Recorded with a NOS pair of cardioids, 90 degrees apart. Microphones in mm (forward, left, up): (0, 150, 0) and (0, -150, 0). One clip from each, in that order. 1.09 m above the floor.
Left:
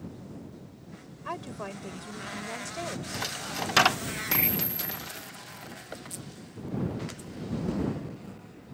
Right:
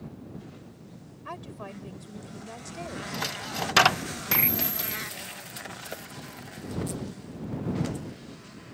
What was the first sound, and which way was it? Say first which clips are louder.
A woman speaking: left 3 dB; 25° left.